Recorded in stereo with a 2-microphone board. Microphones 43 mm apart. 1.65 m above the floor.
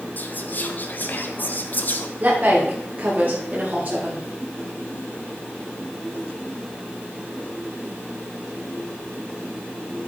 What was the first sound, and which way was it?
Whispering, 45° left (ahead or behind).